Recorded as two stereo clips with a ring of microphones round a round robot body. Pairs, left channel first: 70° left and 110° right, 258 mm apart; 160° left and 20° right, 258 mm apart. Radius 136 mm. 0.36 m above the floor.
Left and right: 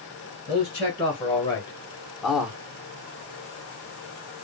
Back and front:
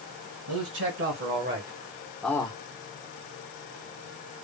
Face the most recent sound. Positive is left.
turn(degrees=175)